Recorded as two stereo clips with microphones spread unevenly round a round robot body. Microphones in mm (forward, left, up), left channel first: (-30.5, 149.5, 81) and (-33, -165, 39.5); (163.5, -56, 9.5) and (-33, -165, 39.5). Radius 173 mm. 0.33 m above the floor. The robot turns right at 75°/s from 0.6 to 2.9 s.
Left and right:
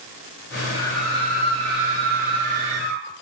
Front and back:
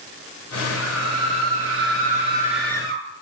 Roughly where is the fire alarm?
I don't hear a fire alarm.